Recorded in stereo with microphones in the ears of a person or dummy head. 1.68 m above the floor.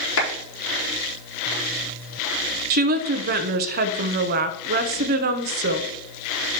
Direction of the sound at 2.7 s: 55° right (ahead or behind).